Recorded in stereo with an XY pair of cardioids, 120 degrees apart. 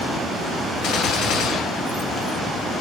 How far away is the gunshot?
About 1.1 m.